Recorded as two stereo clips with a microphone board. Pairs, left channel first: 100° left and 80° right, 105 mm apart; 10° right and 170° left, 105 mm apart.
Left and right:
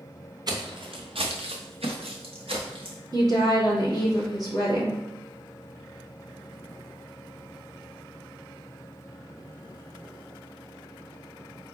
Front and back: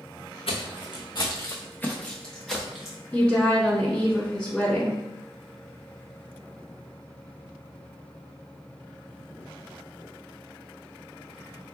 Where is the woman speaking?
85° right, 1.9 m.